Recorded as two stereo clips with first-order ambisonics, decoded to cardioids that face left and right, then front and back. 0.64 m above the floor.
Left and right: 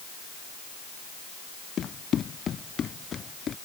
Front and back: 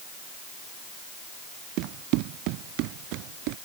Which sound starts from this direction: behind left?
Running footsteps, at 1.8 s.